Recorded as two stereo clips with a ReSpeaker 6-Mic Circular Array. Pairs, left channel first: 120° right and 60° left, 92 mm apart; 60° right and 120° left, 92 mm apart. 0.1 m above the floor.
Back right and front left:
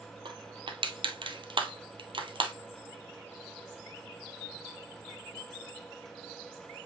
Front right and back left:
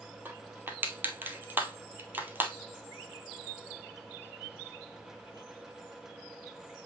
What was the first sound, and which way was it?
Crushing, 55° left.